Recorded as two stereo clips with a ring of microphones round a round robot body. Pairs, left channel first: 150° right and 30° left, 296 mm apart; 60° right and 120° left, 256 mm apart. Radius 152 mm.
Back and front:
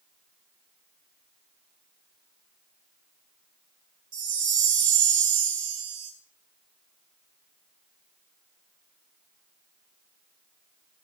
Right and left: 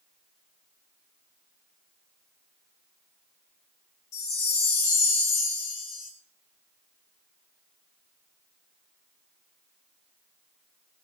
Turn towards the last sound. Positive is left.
turn(degrees=-35)